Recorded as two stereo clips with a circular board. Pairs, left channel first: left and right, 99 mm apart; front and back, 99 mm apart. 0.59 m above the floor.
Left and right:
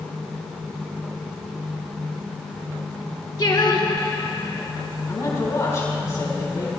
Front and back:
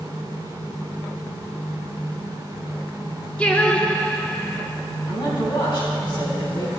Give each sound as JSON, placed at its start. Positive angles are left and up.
{"t": 3.4, "sound": "singing", "azimuth_deg": 70, "distance_m": 0.9}
{"t": 5.1, "sound": "a man speaking", "azimuth_deg": 35, "distance_m": 4.0}